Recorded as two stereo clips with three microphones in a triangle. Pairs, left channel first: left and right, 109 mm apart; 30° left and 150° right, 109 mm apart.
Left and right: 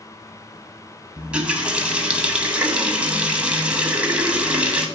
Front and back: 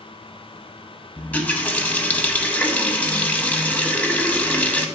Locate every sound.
1.2 s a running tap: 25° right, 0.8 m